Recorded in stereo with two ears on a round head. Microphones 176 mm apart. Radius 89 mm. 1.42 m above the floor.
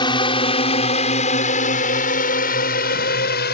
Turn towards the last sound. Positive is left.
turn(degrees=55)  # may be behind; listen again after turning